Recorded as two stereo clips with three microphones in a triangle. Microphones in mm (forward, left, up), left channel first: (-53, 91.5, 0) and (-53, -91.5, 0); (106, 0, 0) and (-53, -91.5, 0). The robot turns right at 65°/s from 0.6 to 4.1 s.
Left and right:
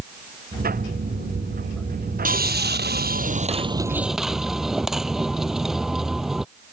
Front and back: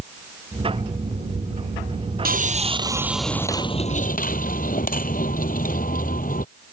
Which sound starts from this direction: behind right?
Sawing, at 2.2 s.